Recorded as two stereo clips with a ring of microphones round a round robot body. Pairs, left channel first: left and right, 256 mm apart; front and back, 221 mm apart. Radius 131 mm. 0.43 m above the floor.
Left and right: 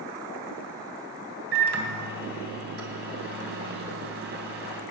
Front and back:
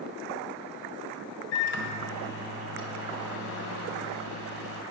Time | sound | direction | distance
1.5 | a microwave | 40° right | 3 m